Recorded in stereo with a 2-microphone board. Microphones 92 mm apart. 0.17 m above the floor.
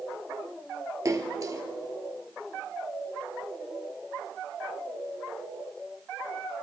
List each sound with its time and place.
1.1 s a splash: 35° right (ahead or behind), 0.9 m